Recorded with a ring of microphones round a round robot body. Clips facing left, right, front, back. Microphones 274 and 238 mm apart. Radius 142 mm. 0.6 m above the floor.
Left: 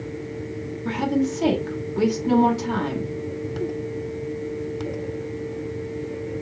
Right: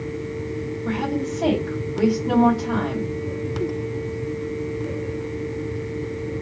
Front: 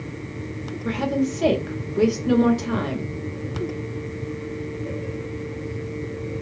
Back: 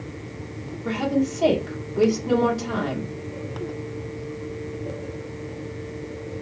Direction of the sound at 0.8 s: 60° left.